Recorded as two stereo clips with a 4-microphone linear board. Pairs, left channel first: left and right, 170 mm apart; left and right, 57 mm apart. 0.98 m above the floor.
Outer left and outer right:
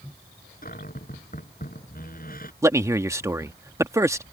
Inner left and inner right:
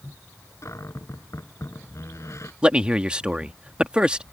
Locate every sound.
0.6 s a cupboard door: 60° left (ahead or behind)
2.6 s a man speaking: 15° right (ahead or behind)